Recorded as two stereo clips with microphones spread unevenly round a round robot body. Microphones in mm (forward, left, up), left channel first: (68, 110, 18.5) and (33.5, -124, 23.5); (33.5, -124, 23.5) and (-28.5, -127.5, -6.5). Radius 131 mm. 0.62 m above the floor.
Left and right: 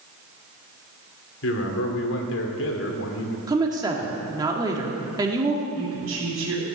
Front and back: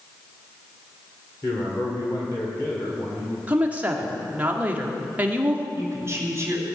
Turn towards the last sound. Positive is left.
turn(degrees=-130)